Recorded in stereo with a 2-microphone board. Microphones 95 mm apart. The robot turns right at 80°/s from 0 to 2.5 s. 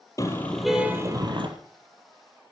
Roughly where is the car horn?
Behind left.